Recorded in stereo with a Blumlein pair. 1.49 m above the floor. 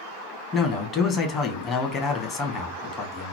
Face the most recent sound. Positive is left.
turn(degrees=25)